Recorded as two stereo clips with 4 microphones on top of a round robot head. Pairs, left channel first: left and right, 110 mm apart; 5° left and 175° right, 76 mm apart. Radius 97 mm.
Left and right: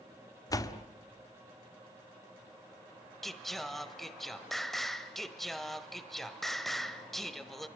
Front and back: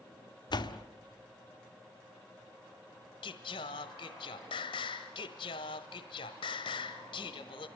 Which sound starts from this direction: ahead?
Singing, at 3.2 s.